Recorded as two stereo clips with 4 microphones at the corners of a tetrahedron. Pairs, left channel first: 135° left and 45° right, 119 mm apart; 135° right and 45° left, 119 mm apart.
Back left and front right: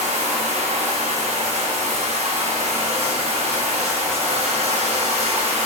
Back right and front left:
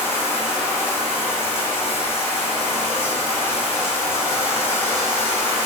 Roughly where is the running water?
Ahead right.